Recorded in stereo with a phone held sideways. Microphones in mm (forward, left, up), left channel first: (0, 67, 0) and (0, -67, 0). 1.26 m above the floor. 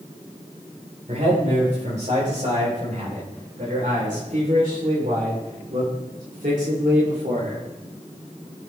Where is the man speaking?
65° right (ahead or behind), 5 m; by 7.6 s 70° right (ahead or behind), 3 m.